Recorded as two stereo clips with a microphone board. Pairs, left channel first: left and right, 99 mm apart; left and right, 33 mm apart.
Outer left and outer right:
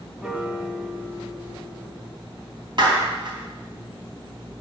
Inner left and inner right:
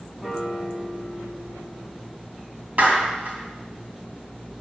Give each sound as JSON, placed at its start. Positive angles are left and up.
{"t": 0.2, "sound": "a piano", "side_deg": -5, "distance_m": 0.8}
{"t": 2.8, "sound": "a clap", "side_deg": -55, "distance_m": 3.0}